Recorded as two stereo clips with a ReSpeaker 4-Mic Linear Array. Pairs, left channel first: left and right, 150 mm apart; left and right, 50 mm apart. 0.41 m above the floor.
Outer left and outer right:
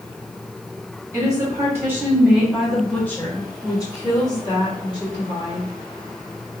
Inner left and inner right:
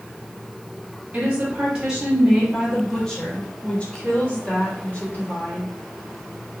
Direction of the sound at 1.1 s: 30° right (ahead or behind).